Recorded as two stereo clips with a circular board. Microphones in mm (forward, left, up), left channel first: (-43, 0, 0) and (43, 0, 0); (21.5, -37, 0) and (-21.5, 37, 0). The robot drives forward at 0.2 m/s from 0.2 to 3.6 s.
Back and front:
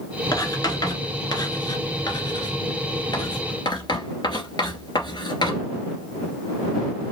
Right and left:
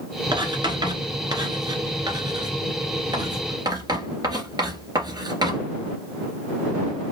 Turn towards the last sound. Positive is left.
turn(degrees=150)